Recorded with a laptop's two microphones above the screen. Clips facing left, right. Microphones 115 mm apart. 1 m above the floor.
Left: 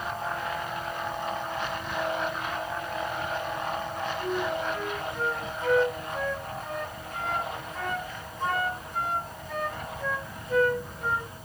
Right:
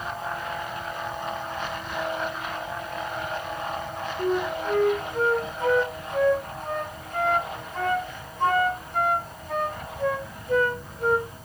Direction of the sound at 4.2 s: 60° right (ahead or behind).